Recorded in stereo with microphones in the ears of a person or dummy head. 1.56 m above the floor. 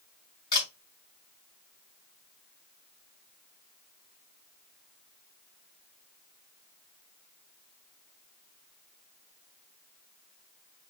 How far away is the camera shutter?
About 3 m.